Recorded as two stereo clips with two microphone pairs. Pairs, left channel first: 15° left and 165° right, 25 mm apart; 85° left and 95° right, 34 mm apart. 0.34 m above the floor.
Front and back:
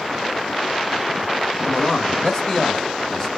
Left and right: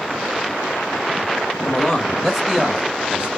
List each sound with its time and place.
1.6 s a man speaking: 30° left, 1.0 m; by 3.3 s 50° right, 1.2 m